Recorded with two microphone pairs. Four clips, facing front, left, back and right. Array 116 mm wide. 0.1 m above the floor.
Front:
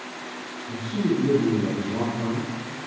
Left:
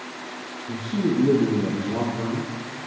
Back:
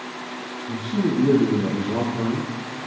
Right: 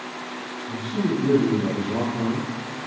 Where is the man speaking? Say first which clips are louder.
Left 1 dB, back 1 dB; 130° left, 2.5 m; by 2.9 s 155° right, 2.5 m.